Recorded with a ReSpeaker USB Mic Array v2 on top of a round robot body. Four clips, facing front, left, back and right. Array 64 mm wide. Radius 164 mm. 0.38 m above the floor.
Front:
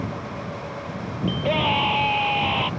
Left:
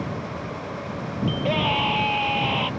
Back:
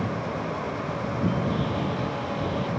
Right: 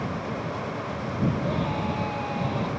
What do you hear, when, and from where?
1.3 s a scream: 25° left